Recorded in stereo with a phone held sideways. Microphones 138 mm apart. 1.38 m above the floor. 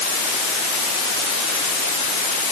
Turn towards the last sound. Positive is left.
No sound to turn to.